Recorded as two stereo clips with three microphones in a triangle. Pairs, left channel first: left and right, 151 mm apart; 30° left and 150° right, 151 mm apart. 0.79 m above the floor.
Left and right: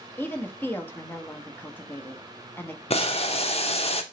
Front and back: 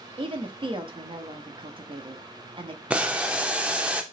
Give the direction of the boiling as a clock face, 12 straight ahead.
8 o'clock.